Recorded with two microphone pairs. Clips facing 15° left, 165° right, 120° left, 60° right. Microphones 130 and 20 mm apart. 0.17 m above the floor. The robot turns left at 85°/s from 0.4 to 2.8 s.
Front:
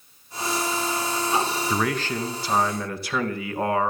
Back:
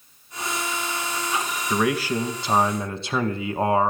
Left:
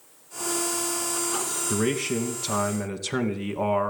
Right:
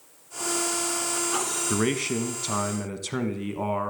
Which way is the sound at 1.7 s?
75° right.